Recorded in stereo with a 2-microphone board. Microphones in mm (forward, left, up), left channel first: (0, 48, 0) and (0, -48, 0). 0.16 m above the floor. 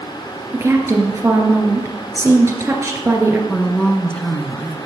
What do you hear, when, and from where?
0.5 s a woman speaking: 30° right (ahead or behind), 2.5 m
3.5 s a woman speaking: 10° left (ahead or behind), 1.6 m